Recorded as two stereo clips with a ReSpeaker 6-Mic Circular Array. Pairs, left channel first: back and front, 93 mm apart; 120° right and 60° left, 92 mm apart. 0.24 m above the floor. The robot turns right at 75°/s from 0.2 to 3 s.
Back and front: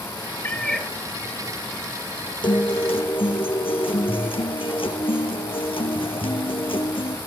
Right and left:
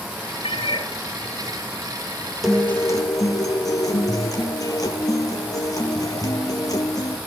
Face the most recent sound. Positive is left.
turn(degrees=-165)